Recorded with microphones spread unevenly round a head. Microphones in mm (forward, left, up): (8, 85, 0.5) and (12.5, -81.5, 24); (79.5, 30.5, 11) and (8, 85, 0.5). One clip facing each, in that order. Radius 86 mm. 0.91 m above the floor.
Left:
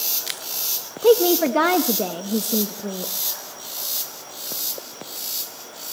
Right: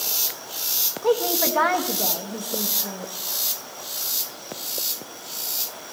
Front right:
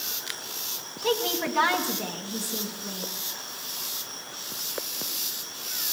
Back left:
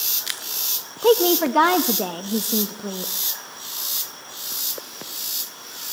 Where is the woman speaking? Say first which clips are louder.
Left 7 dB, back left 10 dB; 125° left, 1.3 m.